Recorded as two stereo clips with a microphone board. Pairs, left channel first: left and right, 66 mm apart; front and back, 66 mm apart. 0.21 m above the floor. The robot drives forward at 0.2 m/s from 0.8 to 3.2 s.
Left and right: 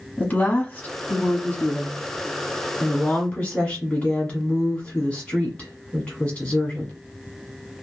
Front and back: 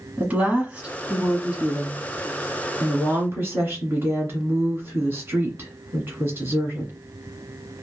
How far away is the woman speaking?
About 1.1 m.